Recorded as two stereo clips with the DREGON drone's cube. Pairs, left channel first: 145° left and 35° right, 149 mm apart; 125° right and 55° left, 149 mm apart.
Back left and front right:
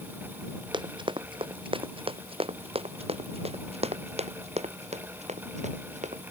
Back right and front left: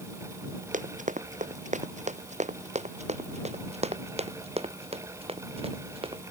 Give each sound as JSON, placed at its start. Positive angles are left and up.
{"t": 0.7, "sound": "running footsteps", "azimuth_deg": 25}